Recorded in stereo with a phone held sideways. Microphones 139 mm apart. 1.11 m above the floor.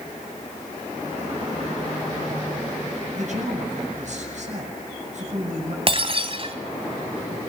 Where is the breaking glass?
40° right (ahead or behind), 2.5 m.